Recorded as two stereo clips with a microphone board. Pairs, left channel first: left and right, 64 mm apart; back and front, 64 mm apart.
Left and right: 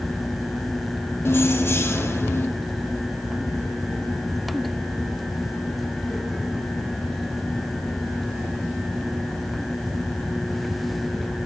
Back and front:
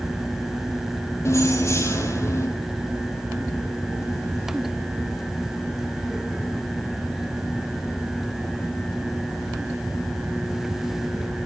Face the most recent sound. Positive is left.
turn(degrees=140)